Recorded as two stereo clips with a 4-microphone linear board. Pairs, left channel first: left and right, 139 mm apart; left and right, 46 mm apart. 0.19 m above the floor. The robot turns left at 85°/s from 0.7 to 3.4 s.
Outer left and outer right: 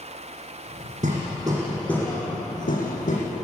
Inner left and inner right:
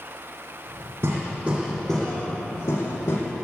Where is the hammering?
115° right, 8.5 m; by 3.2 s 60° left, 8.5 m.